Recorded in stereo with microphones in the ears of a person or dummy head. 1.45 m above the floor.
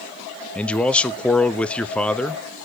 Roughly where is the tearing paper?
I don't hear tearing paper.